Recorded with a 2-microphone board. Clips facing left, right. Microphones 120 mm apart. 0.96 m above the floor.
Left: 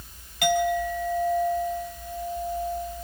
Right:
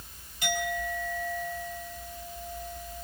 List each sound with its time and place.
0.4 s a clink: 85° left, 4 m